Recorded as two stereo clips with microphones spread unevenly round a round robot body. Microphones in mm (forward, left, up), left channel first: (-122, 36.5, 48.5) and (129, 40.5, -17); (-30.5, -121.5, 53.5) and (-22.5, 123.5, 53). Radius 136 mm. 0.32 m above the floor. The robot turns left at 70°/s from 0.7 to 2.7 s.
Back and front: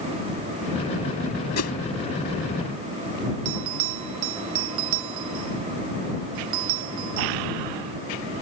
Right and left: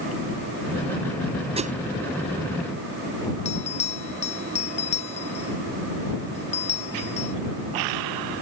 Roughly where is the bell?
Ahead right.